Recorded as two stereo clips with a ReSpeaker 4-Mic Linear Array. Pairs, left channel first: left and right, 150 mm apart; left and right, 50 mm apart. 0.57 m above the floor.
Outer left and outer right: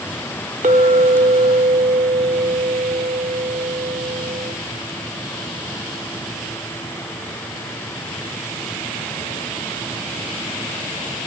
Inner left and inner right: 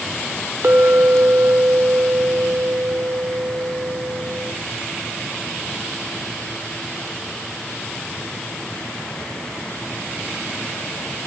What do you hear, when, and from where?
0.6 s a clink: 55° right (ahead or behind), 1.1 m